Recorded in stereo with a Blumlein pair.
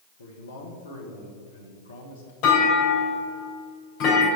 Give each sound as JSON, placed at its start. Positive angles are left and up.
{"t": 0.2, "sound": "a man speaking", "azimuth_deg": 70, "distance_m": 1.4}
{"t": 2.4, "sound": "a clunk", "azimuth_deg": 40, "distance_m": 3.0}